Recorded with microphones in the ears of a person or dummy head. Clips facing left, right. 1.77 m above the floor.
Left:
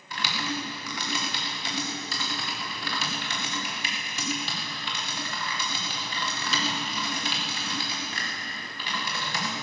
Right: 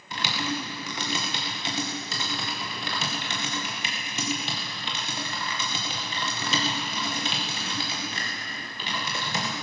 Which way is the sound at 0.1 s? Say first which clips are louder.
Right 2 dB; 25° right (ahead or behind).